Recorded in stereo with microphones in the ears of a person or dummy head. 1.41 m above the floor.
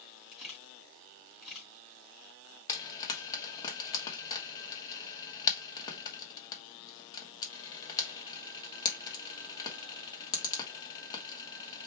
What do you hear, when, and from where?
0.3 s a camera shutter: centre (ahead or behind), 3 m
2.7 s frying: 25° left (ahead or behind), 1.0 m